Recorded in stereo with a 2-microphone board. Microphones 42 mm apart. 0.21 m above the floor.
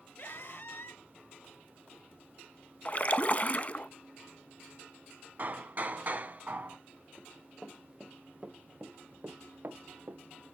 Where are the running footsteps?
5° left (ahead or behind), 1.7 m; by 10.2 s 75° right (ahead or behind), 1.2 m.